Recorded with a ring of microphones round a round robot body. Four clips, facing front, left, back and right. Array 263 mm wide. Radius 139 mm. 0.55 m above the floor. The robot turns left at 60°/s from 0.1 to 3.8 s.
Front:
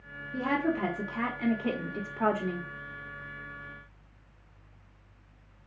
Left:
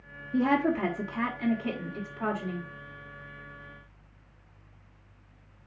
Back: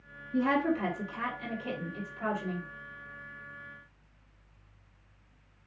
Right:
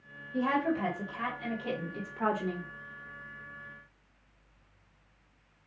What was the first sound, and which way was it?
A woman speaking, 90° left.